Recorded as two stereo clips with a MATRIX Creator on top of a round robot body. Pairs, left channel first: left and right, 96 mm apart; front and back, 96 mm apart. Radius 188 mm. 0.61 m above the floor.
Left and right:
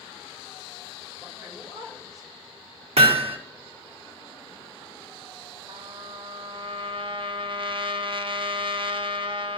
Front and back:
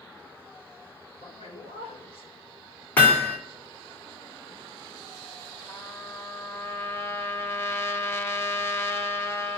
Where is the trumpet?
60° right, 1.3 m.